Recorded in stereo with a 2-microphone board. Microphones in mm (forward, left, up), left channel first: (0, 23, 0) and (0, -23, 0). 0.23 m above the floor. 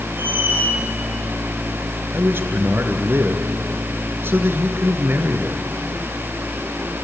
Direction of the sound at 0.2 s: 40° right (ahead or behind).